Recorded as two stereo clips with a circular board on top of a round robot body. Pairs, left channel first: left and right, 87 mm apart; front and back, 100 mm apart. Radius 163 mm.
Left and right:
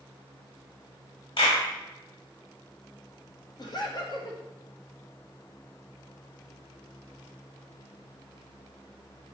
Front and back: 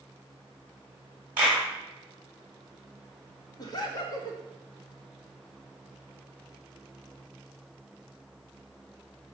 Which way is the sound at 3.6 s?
50° left.